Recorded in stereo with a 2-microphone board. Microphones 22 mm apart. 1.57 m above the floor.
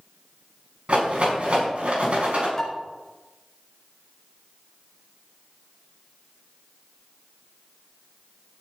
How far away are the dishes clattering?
About 4.5 m.